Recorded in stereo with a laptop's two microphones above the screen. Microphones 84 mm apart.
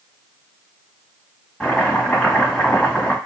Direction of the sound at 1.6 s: 15° left (ahead or behind).